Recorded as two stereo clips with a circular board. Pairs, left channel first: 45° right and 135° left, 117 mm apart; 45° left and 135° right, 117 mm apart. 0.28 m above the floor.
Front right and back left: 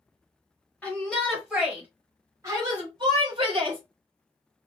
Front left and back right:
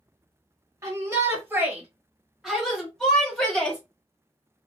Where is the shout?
110° right, 1.0 m; by 3.8 s 120° left, 1.5 m.